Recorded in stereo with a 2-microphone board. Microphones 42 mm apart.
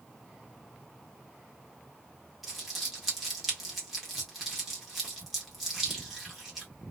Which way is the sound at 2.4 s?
5° right (ahead or behind).